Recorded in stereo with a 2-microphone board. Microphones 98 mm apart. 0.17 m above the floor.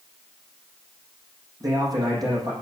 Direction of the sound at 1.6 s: 40° right (ahead or behind).